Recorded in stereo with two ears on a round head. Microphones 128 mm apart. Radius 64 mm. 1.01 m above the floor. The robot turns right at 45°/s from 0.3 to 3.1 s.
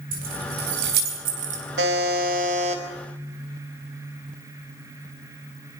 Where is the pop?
No pop in this recording.